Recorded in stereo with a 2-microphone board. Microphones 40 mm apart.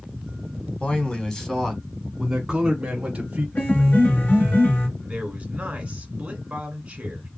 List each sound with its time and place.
0.8 s a man speaking: 30° left (ahead or behind), 1.5 m; by 3.5 s 30° right (ahead or behind), 2 m
3.5 s a piano: 50° left (ahead or behind), 3 m
5.0 s a man speaking: 30° right (ahead or behind), 1.9 m